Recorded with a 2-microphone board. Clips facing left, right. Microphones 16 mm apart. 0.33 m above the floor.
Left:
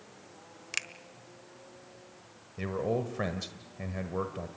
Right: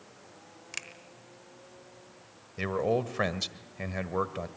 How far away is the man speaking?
About 1.3 m.